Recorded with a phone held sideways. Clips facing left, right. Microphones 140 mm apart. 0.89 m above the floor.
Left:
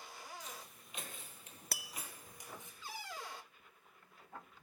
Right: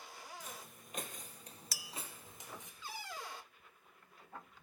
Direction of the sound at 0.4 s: 55° right (ahead or behind).